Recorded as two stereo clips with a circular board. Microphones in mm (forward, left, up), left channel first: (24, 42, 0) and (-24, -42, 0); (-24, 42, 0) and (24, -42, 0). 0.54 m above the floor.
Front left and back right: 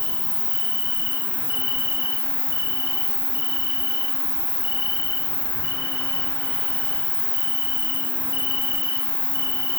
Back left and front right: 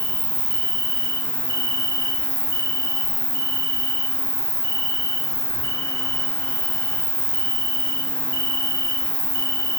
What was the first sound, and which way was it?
An insect, 65° right.